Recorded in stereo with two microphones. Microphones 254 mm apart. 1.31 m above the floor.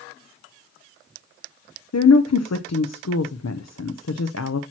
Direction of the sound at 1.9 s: 80° left.